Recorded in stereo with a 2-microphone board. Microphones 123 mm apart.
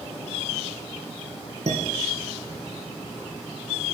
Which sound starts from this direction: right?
Dishes clattering, at 1.7 s.